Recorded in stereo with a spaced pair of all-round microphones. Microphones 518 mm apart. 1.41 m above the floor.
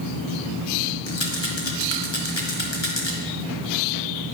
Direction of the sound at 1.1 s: 55° left (ahead or behind).